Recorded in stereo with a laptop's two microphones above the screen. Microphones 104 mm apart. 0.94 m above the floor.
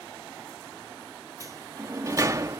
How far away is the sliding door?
About 0.6 m.